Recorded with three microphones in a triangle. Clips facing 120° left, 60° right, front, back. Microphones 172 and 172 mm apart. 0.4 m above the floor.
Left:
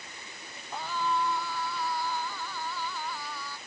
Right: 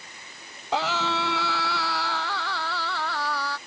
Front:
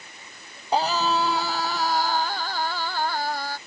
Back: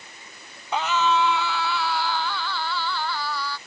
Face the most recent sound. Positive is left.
turn(degrees=-45)